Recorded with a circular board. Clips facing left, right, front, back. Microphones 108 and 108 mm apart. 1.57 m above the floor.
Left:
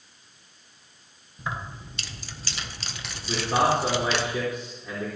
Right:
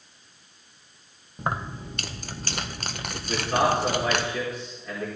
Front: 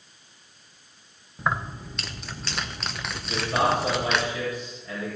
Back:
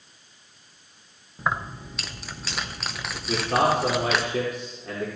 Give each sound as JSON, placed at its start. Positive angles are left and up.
{"t": 1.4, "sound": "keys jangling", "azimuth_deg": -90, "distance_m": 0.8}
{"t": 3.3, "sound": "a man speaking", "azimuth_deg": 165, "distance_m": 4.0}